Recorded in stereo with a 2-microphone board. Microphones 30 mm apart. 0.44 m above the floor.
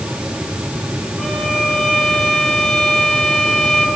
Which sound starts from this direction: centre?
A violin, at 1.2 s.